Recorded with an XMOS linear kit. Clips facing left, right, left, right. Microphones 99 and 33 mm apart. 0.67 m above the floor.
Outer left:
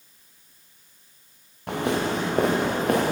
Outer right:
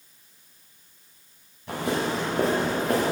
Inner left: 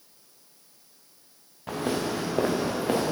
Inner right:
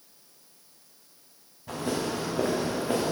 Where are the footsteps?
75° left (ahead or behind), 5 m; by 3.1 s 65° left (ahead or behind), 5 m.